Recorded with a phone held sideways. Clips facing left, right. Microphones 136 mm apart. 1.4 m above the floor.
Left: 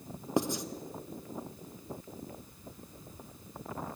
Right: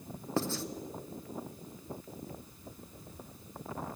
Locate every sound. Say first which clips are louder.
0.4 s writing: left 3 dB; 15° left (ahead or behind), 0.7 m